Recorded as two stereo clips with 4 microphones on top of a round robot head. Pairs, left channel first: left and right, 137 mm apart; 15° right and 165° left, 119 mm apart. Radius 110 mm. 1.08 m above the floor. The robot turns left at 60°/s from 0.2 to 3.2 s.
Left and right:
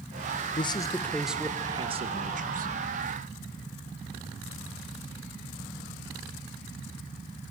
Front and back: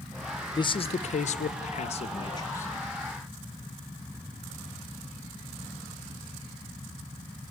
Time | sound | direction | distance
0.6 | a man speaking | 40° left | 0.8 m